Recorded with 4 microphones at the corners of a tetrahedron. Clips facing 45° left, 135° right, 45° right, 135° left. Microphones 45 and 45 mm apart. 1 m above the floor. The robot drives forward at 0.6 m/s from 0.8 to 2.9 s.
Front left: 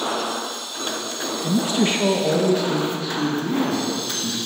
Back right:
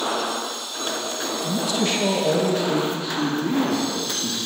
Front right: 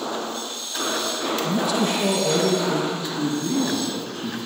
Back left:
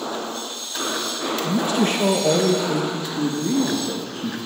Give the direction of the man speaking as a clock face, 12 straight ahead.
10 o'clock.